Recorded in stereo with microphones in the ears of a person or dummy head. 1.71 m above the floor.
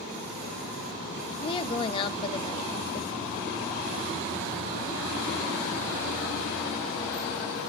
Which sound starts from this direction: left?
A woman speaking, at 1.4 s.